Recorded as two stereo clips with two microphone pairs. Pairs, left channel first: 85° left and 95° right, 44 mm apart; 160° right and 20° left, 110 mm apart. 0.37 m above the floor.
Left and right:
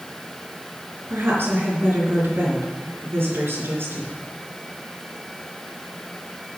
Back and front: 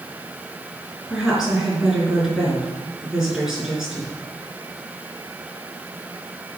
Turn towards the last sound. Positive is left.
turn(degrees=-65)